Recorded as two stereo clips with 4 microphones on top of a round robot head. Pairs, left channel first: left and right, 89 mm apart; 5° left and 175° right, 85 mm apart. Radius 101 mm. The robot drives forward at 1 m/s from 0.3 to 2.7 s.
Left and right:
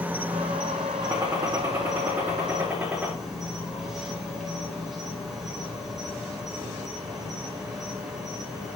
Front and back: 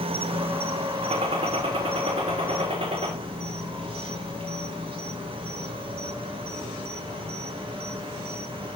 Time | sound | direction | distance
0.0 | an insect | 165° right | 0.8 m
1.0 | a gunshot | 160° right | 2.5 m